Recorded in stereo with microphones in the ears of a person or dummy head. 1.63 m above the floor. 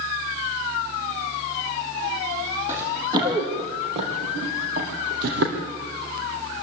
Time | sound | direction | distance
2.7 | running footsteps | 25° right (ahead or behind) | 4.5 m